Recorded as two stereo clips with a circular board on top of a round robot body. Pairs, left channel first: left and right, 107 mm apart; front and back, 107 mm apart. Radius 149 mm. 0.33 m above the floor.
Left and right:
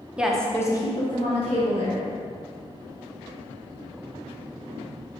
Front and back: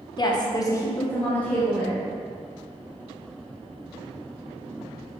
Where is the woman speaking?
15° right, 1.2 m; by 2.0 s 85° left, 2.5 m.